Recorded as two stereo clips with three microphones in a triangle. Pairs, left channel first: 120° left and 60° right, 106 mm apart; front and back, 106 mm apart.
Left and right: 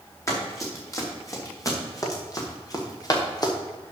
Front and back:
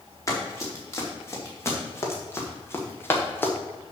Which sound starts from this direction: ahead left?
Running footsteps, at 0.3 s.